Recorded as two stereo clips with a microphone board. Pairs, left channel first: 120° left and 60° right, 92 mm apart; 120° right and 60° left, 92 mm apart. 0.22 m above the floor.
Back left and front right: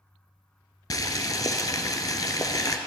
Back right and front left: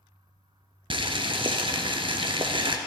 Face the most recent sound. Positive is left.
turn(degrees=75)